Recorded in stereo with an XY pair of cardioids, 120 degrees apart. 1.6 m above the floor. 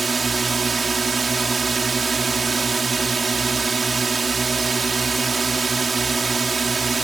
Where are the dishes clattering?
I don't hear dishes clattering.